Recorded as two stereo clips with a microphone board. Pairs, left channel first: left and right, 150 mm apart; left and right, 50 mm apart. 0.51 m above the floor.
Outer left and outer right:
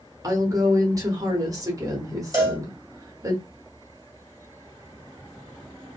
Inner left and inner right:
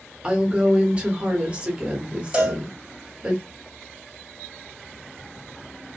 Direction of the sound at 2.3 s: 25° right (ahead or behind).